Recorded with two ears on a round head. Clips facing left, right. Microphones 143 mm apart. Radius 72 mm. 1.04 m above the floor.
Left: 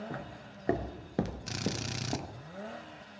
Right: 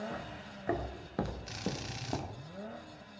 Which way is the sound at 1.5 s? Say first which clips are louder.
Left 3 dB; 55° left (ahead or behind).